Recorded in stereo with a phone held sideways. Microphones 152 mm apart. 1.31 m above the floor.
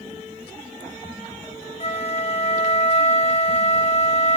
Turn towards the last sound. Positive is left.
turn(degrees=45)  # may be behind; listen again after turning